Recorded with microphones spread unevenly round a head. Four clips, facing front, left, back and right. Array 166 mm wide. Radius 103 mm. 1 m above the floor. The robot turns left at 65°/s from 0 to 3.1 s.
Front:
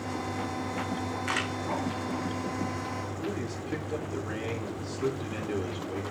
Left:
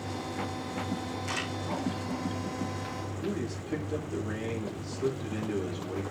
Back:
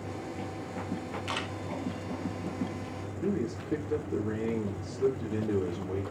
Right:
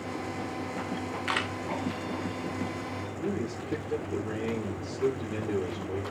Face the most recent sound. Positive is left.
turn(degrees=-170)